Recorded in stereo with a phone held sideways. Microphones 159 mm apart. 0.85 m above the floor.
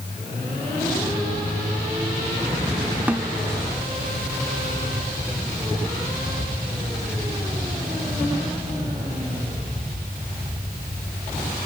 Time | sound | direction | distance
3.1 | a snare drum | 10° right (ahead or behind) | ?